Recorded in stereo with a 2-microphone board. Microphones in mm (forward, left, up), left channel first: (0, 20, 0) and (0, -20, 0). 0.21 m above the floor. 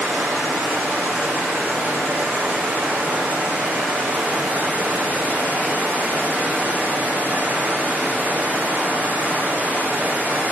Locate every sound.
0.0 s running water: 50° right (ahead or behind), 8.5 m